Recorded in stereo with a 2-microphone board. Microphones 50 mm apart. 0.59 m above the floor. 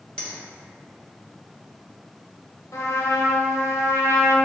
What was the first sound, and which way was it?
A finger snap, 20° left (ahead or behind).